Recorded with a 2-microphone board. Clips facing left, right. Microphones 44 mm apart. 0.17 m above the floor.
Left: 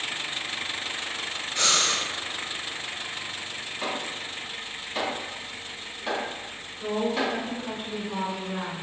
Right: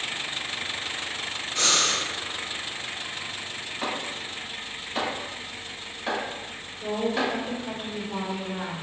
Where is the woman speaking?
30° left (ahead or behind), 1.8 m.